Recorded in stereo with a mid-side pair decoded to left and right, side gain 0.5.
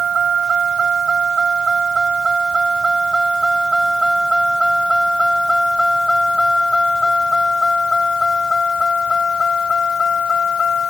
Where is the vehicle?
40° right; by 10.9 s 40° left.